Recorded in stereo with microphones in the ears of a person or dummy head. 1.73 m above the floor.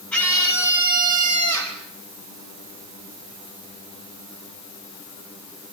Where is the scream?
10° left (ahead or behind), 9 m; by 1.8 s 15° left (ahead or behind), 11.5 m.